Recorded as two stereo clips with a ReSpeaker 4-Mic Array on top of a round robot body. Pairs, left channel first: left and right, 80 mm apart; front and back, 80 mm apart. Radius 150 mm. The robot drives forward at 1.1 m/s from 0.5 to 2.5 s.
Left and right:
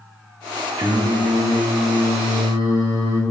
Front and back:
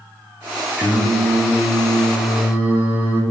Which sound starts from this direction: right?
Singing, at 0.8 s.